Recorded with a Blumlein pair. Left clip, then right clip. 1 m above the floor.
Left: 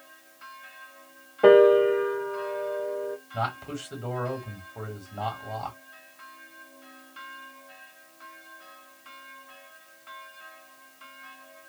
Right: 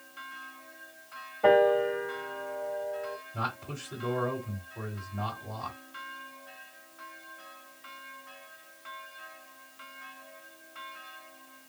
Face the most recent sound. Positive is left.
turn(degrees=70)